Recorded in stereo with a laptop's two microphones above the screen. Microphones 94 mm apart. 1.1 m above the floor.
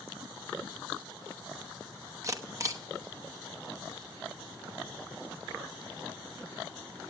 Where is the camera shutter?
35° right (ahead or behind), 0.9 m.